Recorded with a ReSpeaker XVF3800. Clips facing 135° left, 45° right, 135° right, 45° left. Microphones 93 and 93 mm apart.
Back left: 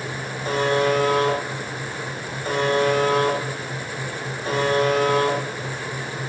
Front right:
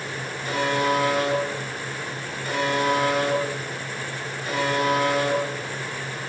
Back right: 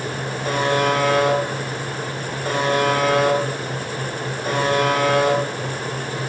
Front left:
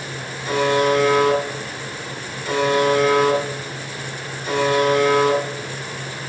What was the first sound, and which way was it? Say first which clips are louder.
A buzzer: back left 3 dB, front left 2 dB; 175° right.